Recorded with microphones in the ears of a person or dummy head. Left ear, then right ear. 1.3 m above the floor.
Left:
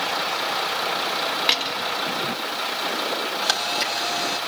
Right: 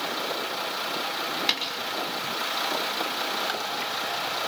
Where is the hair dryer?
I don't hear a hair dryer.